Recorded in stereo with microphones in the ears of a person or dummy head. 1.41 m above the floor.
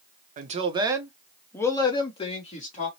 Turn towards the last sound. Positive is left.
turn(degrees=40)  # may be behind; listen again after turning